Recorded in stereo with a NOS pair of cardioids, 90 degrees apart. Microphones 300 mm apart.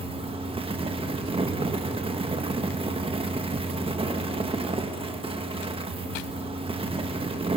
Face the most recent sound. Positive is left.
turn(degrees=-20)